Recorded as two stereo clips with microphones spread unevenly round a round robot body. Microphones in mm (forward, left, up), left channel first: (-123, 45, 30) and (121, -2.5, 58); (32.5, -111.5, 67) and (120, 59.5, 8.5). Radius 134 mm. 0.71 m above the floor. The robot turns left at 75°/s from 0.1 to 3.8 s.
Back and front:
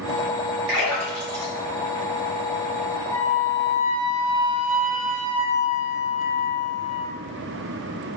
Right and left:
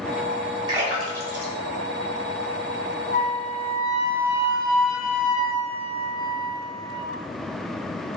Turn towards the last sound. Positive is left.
turn(degrees=50)